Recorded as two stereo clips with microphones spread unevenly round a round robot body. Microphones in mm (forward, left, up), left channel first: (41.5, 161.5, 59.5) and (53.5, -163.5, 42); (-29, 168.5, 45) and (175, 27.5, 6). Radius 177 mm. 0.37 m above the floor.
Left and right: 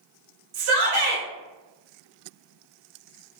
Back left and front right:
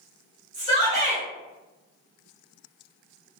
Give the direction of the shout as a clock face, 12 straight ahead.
3 o'clock.